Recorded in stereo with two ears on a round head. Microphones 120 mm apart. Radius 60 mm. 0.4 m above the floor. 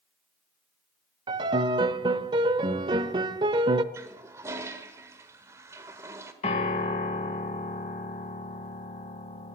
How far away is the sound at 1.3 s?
About 0.6 m.